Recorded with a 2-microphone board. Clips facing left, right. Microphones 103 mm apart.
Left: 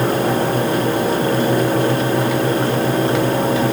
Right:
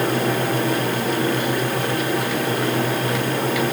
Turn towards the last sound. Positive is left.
No sound to turn to.